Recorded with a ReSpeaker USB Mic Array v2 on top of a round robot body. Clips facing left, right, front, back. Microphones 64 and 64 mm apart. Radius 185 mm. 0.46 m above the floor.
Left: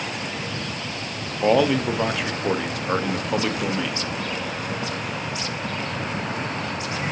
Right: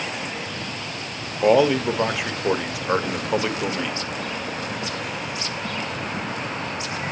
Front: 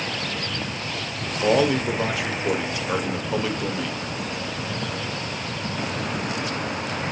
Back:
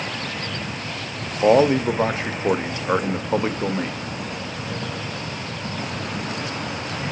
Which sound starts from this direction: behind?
A man speaking, at 1.4 s.